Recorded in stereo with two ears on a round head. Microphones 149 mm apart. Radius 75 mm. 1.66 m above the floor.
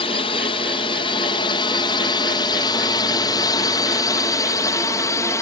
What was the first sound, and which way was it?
A drone, 35° left (ahead or behind).